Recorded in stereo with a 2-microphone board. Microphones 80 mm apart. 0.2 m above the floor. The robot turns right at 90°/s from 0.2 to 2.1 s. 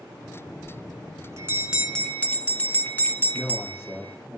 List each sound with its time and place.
0.6 s a bell: 110° right, 1.1 m; by 4.2 s 25° left, 1.1 m
3.3 s a man speaking: centre (ahead or behind), 7.5 m